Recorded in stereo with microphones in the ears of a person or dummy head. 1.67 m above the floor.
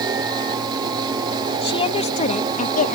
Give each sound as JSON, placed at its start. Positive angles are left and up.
{"t": 1.6, "sound": "a woman speaking", "side_deg": 30}